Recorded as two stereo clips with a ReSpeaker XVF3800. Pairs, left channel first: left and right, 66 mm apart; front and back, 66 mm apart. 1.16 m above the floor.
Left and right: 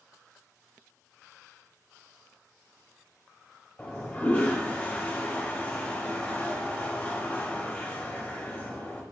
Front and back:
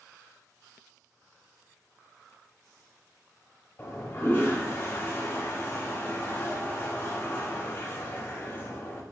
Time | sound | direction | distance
3.8 | a toilet flushing | 30° left | 0.7 m